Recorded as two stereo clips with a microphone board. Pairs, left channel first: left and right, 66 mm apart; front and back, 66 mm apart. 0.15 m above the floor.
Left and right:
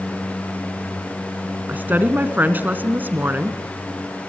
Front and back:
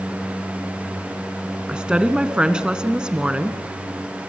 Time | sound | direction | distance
1.7 | a woman speaking | 115° right | 1.3 m